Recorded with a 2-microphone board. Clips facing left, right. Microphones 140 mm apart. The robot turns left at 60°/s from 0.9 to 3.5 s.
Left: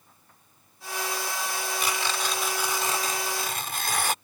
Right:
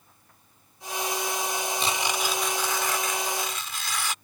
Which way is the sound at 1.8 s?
145° right.